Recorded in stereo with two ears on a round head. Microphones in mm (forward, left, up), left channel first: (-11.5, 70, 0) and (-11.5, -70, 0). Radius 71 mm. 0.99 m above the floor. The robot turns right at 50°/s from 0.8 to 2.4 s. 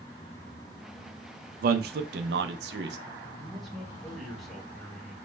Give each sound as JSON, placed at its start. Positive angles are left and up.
{"t": 1.6, "sound": "a man speaking", "side_deg": -60, "distance_m": 0.5}
{"t": 3.4, "sound": "a man speaking", "side_deg": 0, "distance_m": 1.3}